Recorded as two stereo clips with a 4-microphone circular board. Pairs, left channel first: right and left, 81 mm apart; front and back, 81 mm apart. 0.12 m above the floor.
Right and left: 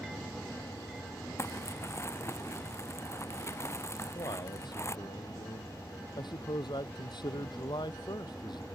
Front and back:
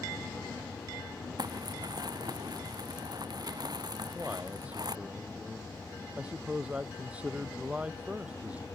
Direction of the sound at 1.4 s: 145° right.